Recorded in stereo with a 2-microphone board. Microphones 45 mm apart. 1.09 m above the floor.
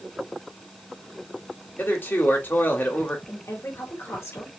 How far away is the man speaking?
About 2.5 m.